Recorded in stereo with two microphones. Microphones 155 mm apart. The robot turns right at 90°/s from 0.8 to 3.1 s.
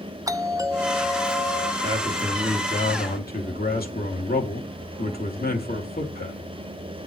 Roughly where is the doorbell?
Ahead right.